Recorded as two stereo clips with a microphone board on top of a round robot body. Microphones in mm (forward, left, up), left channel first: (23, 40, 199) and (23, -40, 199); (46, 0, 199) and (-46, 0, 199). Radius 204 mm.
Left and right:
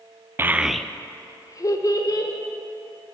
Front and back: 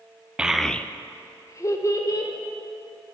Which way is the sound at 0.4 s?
115° right.